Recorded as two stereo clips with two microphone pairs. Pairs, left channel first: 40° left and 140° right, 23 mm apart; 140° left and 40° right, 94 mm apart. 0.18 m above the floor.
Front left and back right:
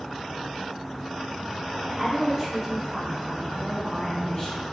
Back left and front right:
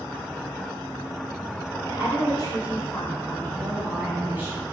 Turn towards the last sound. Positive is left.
turn(degrees=-10)